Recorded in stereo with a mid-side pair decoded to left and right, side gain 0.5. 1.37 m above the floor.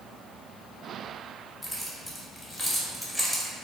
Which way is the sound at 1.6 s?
5° left.